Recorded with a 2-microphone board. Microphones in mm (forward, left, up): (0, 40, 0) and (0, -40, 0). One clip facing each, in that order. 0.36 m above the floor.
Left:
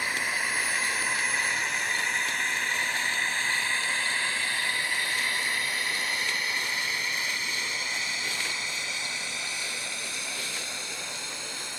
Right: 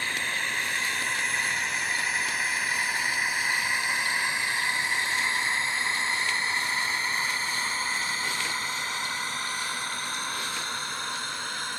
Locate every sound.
0.0 s a drone: 10° left (ahead or behind); by 11.8 s 50° right (ahead or behind)